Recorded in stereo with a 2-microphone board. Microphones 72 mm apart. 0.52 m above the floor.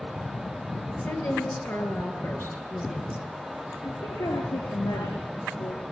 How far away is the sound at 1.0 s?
About 9 m.